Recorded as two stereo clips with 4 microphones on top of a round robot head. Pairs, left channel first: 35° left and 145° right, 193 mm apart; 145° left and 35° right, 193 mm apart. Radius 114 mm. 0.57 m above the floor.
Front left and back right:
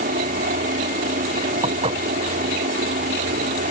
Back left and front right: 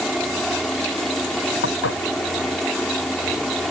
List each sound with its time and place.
0.0 s a helicopter: 125° right
1.6 s dishes clattering: 155° left